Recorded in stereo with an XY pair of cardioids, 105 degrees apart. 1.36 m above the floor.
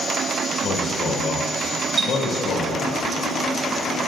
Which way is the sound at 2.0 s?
45° right.